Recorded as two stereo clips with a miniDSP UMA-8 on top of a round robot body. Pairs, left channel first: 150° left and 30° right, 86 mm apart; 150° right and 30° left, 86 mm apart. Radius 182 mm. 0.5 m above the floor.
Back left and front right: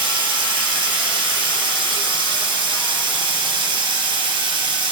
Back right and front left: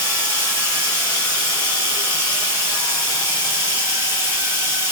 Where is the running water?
30° right, 2 m.